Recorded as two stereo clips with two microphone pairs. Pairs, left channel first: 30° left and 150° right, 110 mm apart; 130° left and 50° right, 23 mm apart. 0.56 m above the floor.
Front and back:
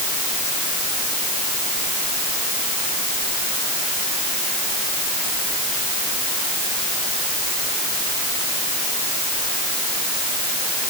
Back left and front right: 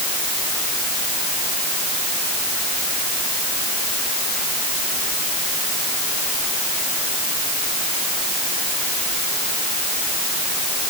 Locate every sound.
Only background noise.